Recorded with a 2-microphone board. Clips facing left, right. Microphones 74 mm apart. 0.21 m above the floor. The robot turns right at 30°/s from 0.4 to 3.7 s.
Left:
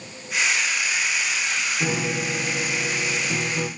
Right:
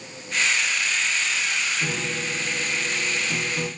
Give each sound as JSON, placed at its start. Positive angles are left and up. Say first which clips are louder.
{"t": 1.8, "sound": "a piano", "louder": "left 3 dB", "azimuth_deg": 85, "distance_m": 3.5}